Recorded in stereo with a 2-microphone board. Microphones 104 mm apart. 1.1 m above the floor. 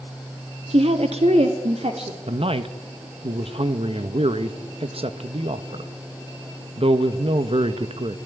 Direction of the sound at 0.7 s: 70° right (ahead or behind).